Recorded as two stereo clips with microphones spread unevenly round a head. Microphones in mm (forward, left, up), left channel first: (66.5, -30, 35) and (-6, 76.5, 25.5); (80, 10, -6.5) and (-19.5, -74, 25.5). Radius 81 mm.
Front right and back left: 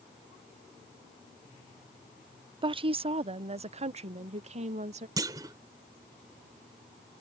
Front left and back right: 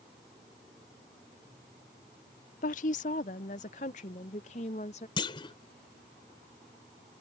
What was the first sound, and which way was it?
A woman speaking, 70° left.